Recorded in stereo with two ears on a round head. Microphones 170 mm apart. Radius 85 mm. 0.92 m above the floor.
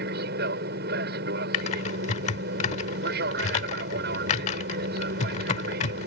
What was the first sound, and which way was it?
An aircraft, 55° right (ahead or behind).